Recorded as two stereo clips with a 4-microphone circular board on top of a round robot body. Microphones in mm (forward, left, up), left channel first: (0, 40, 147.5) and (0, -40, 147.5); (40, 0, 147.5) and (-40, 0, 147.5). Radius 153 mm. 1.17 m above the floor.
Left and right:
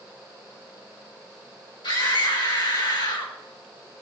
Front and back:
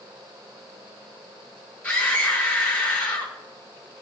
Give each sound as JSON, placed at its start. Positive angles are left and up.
{"t": 1.8, "sound": "a scream", "azimuth_deg": 75, "distance_m": 4.5}